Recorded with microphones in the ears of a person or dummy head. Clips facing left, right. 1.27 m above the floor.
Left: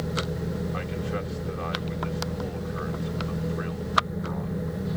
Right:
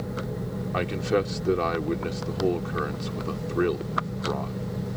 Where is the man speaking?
80° right.